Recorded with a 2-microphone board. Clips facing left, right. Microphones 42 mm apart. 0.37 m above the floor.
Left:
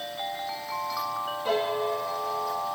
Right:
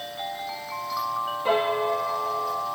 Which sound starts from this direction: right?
A piano, at 1.4 s.